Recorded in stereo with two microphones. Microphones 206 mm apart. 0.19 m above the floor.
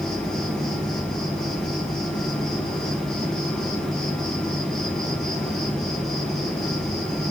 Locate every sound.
0.0 s an insect: centre (ahead or behind), 3.5 m